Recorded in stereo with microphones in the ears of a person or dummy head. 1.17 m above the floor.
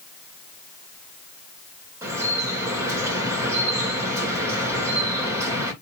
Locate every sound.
2.0 s dripping: 15° right (ahead or behind), 1.7 m